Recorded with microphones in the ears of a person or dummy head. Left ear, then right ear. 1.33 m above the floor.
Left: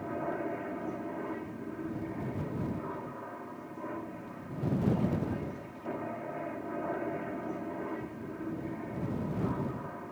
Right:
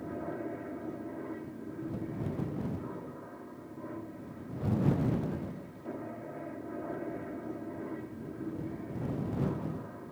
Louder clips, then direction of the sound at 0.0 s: Left 4 dB; 40° left (ahead or behind).